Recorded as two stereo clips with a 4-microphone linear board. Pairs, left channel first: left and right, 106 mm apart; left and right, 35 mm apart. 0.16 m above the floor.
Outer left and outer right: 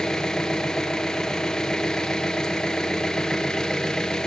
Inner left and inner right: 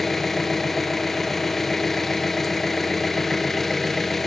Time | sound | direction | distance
0.0 | an engine running | 5° left (ahead or behind) | 1.1 m